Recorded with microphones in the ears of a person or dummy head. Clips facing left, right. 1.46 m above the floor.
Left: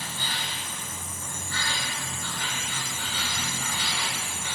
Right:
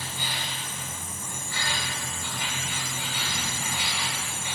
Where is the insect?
15° right (ahead or behind), 9 m.